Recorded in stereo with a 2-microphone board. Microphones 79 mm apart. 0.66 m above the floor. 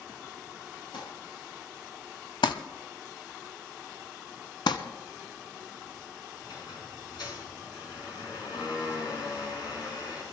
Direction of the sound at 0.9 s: 80° left.